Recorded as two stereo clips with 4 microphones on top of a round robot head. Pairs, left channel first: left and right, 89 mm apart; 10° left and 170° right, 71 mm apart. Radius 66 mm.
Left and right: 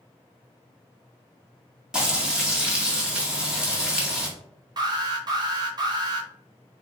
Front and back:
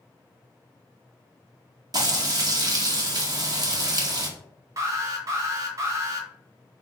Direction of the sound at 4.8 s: 130° right.